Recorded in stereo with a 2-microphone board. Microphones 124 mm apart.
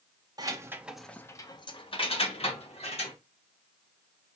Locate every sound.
0.4 s keys jangling: 30° right (ahead or behind), 0.7 m; by 3.1 s 55° left (ahead or behind), 1.5 m